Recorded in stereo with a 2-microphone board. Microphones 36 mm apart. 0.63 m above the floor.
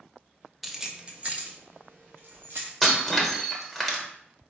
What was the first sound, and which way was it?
Keys jangling, centre (ahead or behind).